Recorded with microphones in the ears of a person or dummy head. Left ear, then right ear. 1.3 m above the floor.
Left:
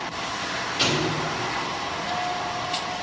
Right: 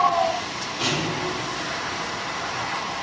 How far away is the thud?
About 1.9 m.